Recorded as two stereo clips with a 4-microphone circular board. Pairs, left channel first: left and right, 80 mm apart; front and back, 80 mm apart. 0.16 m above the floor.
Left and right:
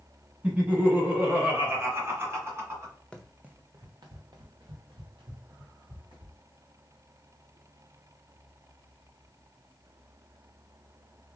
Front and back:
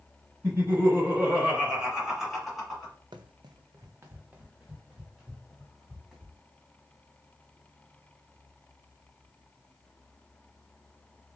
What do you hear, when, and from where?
0.4 s laughter: 155° right, 1.9 m; by 2.9 s 80° right, 1.8 m
3.1 s running footsteps: 170° left, 0.6 m; by 6.4 s 95° right, 3 m